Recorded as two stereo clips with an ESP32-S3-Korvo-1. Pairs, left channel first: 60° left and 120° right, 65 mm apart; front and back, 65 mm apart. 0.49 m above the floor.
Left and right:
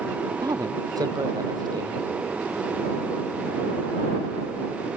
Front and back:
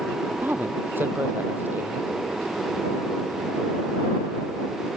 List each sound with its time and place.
0.4 s a woman speaking: 120° right